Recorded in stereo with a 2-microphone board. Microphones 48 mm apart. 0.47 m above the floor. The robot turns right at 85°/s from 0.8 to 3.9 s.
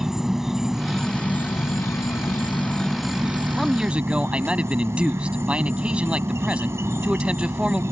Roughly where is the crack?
I don't hear a crack.